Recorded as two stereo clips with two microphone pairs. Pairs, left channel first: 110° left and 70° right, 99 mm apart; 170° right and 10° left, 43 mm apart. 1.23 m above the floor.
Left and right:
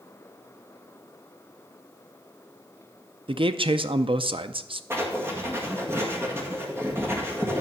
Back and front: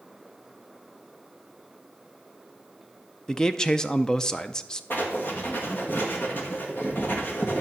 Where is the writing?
135° right, 1.9 m.